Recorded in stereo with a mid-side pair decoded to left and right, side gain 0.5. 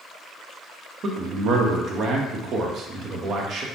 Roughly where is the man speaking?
Ahead right.